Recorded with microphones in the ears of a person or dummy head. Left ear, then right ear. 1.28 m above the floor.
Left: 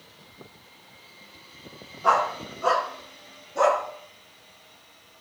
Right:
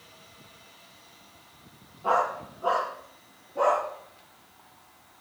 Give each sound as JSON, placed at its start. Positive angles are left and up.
{"t": 2.0, "sound": "a dog barking", "side_deg": 60, "distance_m": 4.5}